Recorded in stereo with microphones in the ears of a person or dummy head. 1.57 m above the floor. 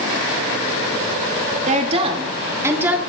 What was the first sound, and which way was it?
A woman speaking, 40° right (ahead or behind).